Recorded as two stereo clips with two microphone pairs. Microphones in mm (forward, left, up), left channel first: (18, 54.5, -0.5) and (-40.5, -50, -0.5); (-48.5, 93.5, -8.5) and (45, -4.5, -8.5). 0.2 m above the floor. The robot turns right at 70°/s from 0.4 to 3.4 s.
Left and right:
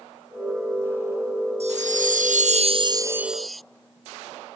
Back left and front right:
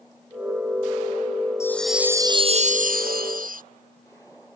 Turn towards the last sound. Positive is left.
turn(degrees=-30)